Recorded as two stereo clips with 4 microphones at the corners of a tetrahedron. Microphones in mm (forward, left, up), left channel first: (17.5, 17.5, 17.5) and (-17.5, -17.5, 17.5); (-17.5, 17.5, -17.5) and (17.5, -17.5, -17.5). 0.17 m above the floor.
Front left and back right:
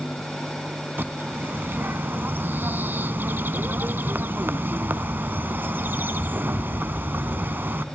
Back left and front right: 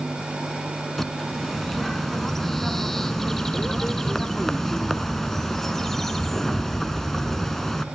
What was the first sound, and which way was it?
A bird, 145° right.